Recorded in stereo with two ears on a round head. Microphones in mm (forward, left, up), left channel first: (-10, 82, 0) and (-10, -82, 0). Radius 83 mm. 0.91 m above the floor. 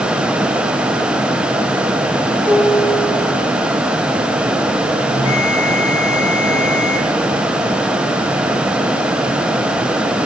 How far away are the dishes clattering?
About 3.5 m.